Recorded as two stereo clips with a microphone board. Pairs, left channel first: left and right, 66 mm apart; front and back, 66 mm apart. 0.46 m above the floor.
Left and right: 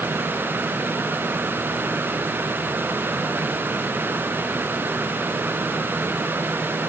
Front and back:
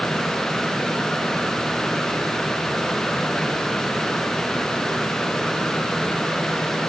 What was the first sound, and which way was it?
Only background noise.